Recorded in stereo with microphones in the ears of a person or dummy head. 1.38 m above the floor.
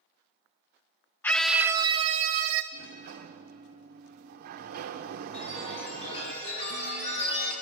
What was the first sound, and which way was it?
A scream, 10° left (ahead or behind).